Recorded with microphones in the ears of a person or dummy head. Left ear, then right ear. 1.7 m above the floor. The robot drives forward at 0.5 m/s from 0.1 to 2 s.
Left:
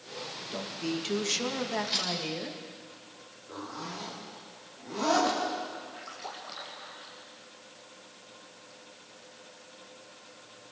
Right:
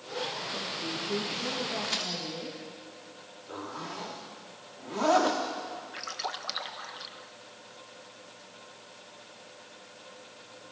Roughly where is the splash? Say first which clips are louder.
Right 6 dB; right.